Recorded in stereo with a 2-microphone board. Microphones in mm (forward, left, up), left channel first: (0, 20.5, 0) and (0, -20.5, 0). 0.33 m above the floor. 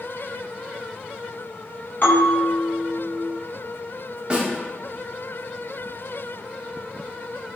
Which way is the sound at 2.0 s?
55° left (ahead or behind).